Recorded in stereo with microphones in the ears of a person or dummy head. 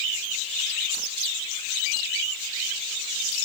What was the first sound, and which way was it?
Only background noise.